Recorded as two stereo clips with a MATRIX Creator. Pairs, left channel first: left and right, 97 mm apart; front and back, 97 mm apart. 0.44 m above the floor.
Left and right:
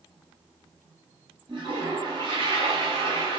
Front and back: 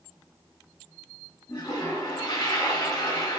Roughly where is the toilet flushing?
Ahead right.